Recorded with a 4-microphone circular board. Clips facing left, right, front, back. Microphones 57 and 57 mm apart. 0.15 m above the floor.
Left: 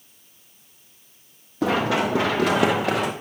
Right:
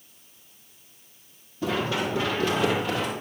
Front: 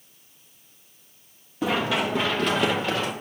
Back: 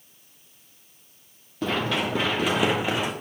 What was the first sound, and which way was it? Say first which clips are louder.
Running footsteps: left 5 dB, front 2 dB; 80° left.